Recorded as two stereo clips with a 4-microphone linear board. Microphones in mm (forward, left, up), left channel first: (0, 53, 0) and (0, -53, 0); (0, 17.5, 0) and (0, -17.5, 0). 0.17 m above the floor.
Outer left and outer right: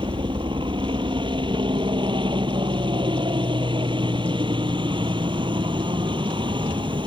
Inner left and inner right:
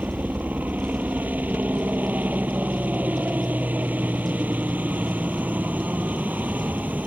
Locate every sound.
0.0 s a helicopter: 50° right (ahead or behind)